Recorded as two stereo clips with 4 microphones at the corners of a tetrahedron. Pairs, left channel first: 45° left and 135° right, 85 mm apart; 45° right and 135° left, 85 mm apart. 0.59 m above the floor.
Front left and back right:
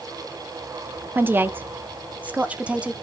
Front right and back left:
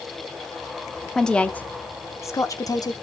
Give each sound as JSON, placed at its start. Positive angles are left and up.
{"t": 1.1, "sound": "a woman speaking", "azimuth_deg": -120, "distance_m": 1.0}